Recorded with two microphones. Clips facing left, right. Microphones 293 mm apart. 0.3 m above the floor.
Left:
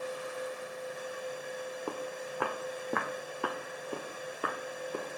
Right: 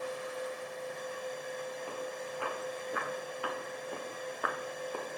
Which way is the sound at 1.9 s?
70° left (ahead or behind).